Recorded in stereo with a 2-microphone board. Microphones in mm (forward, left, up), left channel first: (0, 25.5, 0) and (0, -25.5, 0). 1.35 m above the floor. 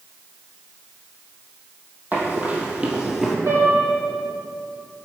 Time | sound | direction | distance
2.1 | running footsteps | 35° right (ahead or behind) | 2 m
3.5 | a piano | 80° right | 2.5 m